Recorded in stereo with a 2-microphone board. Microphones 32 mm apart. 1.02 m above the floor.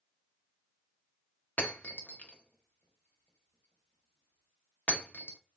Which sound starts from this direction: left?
Breaking glass, at 1.6 s.